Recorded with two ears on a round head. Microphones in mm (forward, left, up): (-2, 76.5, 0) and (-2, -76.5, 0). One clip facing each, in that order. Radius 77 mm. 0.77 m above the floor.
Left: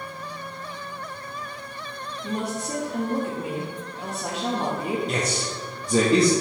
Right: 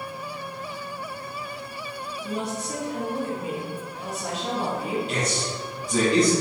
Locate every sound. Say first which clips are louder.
2.2 s a woman speaking: left 2 dB; 40° left (ahead or behind), 0.7 m
5.1 s a man speaking: left 1 dB; 30° left (ahead or behind), 0.7 m